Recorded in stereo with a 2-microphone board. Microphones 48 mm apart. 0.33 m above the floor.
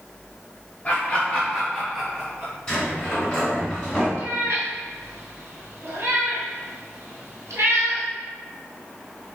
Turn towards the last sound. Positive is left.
turn(degrees=-85)